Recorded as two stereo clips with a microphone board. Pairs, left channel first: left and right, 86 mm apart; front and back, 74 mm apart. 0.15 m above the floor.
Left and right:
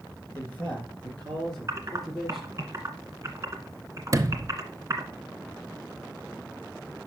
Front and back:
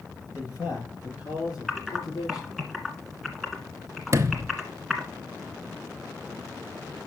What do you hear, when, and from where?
0.3 s a man speaking: 25° left, 3 m; by 2.6 s 5° right, 3.5 m
1.7 s typing on a keyboard: 85° right, 1.5 m
4.1 s a sliding door: 135° right, 0.6 m